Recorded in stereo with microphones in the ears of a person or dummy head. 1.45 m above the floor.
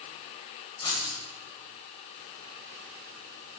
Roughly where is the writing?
Left.